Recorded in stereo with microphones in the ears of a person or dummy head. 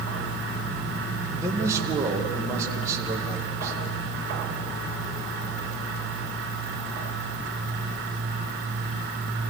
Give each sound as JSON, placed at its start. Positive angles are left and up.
{"t": 1.4, "sound": "a man speaking", "side_deg": -10, "distance_m": 2.0}